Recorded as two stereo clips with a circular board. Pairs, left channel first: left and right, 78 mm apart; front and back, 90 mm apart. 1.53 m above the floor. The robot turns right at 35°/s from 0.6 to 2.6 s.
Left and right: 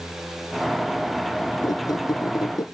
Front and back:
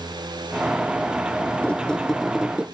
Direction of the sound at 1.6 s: 70° left.